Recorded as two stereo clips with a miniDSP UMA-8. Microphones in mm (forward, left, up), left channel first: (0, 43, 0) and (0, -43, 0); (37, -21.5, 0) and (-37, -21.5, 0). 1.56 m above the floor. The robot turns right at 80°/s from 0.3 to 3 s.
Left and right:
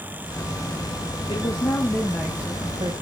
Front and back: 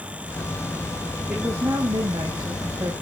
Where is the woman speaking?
110° left, 1.2 m; by 2.9 s 120° right, 1.2 m.